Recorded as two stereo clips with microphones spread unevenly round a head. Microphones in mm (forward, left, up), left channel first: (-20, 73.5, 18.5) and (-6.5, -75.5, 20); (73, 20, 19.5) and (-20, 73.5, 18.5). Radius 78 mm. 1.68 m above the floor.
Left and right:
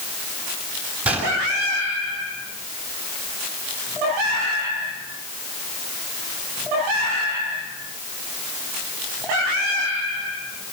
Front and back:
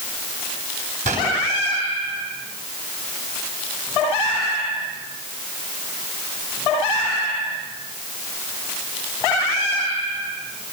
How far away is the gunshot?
About 7 m.